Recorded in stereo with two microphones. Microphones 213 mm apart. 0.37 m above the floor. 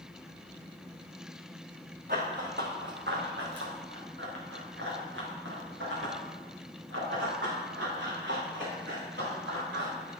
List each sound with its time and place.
2.1 s running footsteps: 50° right (ahead or behind), 2.5 m; by 10.1 s 65° right (ahead or behind), 7.5 m